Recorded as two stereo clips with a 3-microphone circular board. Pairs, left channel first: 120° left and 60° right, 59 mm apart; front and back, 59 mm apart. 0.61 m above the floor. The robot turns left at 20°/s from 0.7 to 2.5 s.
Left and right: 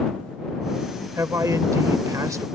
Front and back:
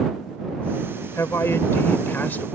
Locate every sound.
1.2 s a man speaking: 35° right; by 2.5 s 60° right